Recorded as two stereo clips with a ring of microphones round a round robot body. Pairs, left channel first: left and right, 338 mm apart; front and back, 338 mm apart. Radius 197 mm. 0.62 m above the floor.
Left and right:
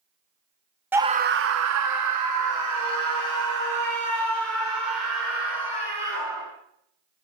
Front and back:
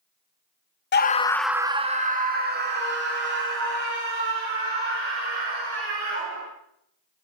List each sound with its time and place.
0.9 s a scream: 10° right, 0.7 m; by 6.5 s 130° right, 5 m